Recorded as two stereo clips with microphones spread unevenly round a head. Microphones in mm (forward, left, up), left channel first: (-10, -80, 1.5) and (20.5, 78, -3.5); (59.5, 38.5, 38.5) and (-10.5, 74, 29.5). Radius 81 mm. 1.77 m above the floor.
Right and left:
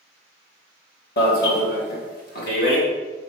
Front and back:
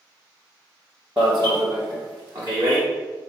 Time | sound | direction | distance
1.2 | an alarm | 130° right | 2.5 m